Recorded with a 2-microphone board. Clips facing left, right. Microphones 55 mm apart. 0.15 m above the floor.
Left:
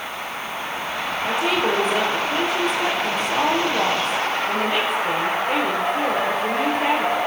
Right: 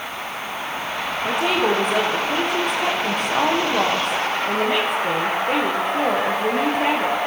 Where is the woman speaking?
55° right (ahead or behind), 9 m.